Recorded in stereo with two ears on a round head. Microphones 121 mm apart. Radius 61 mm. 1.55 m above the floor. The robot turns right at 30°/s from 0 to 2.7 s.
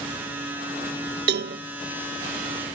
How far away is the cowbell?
About 0.6 m.